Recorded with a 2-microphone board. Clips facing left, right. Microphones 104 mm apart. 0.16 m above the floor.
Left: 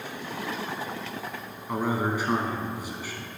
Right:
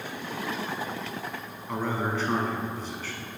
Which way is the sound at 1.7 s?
15° left (ahead or behind).